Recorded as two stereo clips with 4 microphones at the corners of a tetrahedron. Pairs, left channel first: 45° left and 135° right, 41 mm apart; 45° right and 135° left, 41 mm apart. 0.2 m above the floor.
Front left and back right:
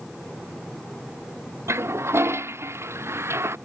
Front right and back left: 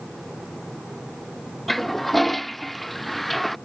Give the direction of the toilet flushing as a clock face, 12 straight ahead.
4 o'clock.